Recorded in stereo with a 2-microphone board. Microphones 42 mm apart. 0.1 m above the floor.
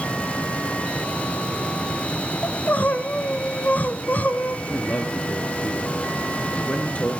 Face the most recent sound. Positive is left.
turn(degrees=30)  # may be behind; listen again after turning